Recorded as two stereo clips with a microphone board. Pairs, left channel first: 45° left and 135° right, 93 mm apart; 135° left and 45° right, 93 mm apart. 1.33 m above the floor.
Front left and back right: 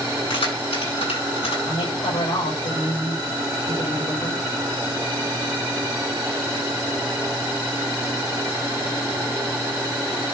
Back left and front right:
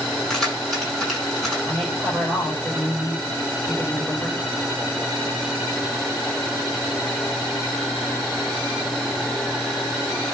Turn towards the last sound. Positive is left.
turn(degrees=45)